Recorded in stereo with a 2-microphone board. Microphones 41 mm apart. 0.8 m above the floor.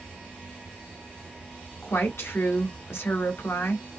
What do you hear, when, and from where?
0.0 s an insect: 40° right (ahead or behind), 1.2 m
1.8 s a woman speaking: 75° left (ahead or behind), 1.5 m